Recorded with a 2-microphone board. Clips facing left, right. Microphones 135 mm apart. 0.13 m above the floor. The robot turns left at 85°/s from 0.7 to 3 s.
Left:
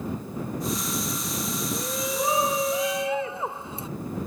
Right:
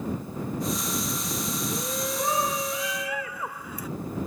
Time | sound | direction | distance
1.7 | a shout | 10° right (ahead or behind) | ?